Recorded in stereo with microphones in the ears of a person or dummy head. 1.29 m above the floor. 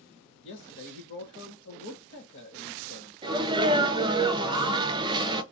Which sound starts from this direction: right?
A sneeze, at 3.2 s.